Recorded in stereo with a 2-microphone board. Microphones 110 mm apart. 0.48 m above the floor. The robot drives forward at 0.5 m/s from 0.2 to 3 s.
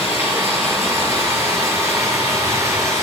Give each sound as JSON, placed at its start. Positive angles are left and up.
{"t": 0.0, "sound": "running water", "side_deg": -25, "distance_m": 7.0}